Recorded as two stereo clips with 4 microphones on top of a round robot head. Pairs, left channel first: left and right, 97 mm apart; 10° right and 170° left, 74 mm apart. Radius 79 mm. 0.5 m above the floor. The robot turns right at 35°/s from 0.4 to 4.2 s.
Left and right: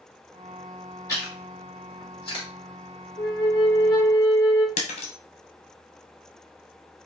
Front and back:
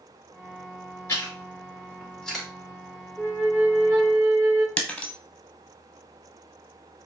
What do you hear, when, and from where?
1.1 s chewing: 35° left, 3 m; by 2.5 s 85° left, 3 m
3.2 s a flute: 105° left, 1.7 m; by 4.7 s 140° left, 1.7 m
4.8 s breaking glass: 70° left, 0.9 m